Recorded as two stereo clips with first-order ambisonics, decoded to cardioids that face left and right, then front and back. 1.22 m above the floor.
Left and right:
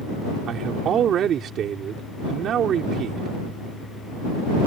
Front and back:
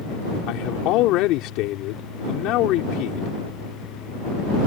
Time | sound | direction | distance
0.5 | a man speaking | 35° right | ?